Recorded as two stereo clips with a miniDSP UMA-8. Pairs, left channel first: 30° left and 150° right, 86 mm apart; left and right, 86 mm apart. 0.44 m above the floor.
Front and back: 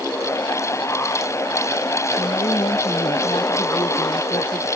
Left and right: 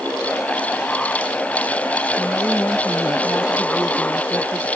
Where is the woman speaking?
30° left.